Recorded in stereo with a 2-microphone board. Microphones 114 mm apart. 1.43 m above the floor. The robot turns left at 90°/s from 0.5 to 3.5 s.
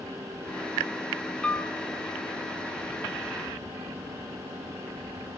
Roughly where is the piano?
Centre.